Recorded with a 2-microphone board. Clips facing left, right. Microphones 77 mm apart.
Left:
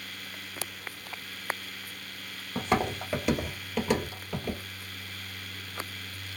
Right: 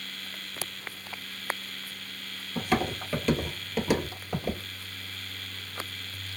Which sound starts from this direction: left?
Footsteps, at 2.5 s.